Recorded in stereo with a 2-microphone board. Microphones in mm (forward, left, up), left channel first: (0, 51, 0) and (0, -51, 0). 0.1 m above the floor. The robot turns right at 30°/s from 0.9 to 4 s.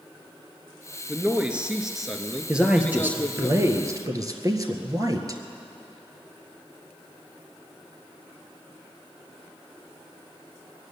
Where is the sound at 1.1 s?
15° right (ahead or behind), 1.4 m; by 3.5 s 15° left (ahead or behind), 1.4 m.